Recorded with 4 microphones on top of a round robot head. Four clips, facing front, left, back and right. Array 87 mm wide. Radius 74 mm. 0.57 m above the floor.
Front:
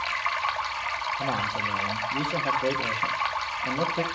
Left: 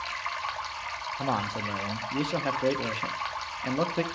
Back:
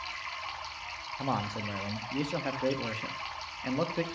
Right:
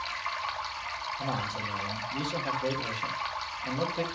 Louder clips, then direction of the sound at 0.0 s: Left 1 dB, front 12 dB; 10° left.